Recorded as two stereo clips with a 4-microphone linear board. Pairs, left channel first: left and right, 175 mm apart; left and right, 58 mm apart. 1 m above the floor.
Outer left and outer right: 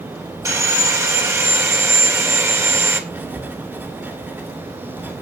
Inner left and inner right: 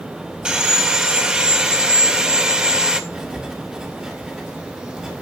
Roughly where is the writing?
Centre.